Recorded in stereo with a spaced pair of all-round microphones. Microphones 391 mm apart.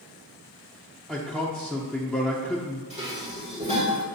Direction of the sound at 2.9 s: 15° right (ahead or behind).